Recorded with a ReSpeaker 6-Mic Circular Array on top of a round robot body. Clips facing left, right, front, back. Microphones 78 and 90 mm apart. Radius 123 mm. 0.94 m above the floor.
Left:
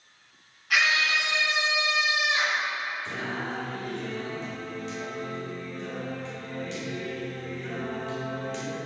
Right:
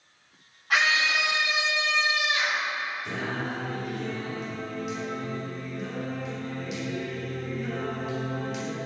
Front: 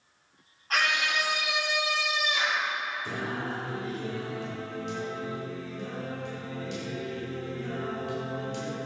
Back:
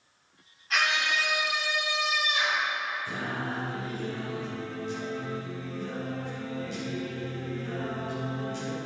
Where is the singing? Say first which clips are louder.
Right 1 dB, even; 10° right, 2.5 m.